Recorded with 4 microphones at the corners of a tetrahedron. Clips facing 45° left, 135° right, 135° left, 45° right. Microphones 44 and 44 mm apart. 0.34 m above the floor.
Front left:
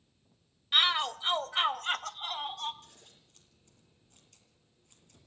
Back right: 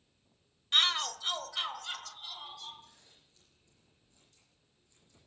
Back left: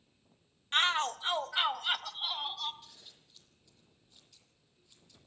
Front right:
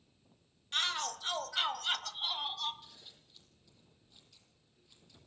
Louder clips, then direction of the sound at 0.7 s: Front left 2 dB, back left 6 dB; 115° left.